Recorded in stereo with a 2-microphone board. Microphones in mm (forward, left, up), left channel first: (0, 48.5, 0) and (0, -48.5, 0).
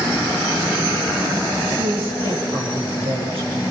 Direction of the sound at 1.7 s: 65° right (ahead or behind).